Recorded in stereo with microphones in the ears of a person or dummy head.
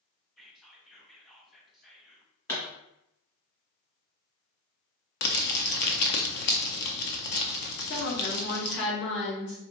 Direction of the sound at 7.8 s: 65° left (ahead or behind).